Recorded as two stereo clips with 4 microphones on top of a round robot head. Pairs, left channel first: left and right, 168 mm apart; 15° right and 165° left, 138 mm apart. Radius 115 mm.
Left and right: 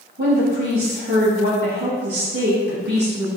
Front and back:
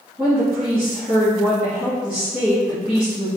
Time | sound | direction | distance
0.2 | a woman speaking | 110° right | 2.0 m